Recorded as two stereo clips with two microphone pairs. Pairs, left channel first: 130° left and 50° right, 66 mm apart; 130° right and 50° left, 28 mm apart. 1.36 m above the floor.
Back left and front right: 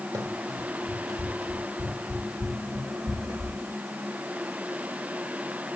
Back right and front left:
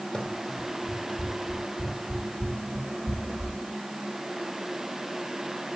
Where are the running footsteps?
55° right, 3 m; by 3.5 s 25° right, 5 m.